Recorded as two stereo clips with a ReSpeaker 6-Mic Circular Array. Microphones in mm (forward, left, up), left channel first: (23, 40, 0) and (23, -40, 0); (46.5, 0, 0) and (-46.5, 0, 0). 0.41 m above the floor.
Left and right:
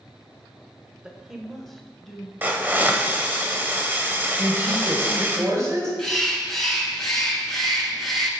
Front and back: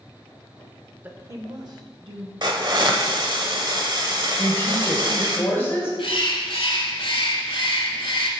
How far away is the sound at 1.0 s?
About 0.8 m.